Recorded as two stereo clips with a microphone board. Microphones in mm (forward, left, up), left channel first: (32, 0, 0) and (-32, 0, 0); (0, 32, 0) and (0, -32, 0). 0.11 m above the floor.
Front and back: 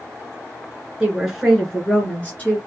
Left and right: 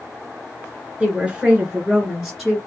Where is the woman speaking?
125° right, 1.8 m; by 2.6 s 5° left, 1.8 m.